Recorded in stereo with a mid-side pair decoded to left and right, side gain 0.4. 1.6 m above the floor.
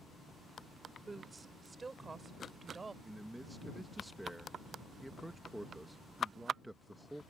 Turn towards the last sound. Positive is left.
turn(degrees=-5)